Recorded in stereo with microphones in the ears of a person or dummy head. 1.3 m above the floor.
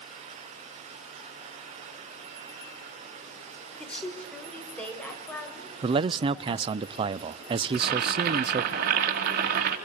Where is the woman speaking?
5° left (ahead or behind), 5.5 m; by 6.8 s 10° left (ahead or behind), 9.5 m.